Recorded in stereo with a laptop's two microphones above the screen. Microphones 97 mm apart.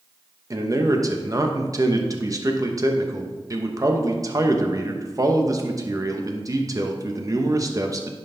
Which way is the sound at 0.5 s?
35° right (ahead or behind).